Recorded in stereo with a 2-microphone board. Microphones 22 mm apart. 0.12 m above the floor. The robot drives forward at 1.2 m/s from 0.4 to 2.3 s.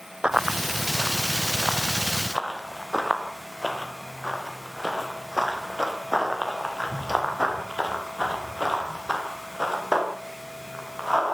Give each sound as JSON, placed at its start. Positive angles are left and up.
{"t": 0.2, "sound": "running footsteps", "side_deg": -45, "distance_m": 1.4}